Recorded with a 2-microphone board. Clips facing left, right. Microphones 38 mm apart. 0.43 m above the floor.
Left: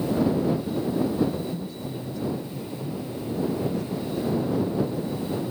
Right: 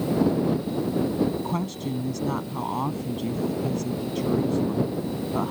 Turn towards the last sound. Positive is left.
turn(degrees=-75)  # may be behind; listen again after turning